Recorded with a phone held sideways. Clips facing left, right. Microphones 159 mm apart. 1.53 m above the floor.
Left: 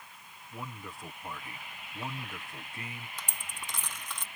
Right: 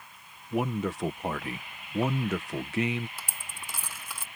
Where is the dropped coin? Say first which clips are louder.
Even; 10° right (ahead or behind).